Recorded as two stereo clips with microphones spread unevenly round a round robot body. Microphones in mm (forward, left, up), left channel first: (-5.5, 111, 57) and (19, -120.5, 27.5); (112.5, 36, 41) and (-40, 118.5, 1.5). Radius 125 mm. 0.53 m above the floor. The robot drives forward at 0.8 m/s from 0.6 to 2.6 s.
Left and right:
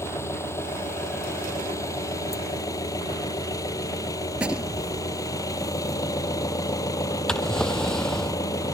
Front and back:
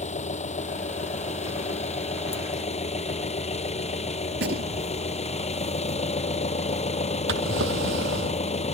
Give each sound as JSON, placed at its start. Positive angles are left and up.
{"t": 0.0, "sound": "an engine running", "azimuth_deg": 15}
{"t": 4.3, "sound": "a gunshot", "azimuth_deg": -170}
{"t": 7.3, "sound": "a drawer", "azimuth_deg": 180}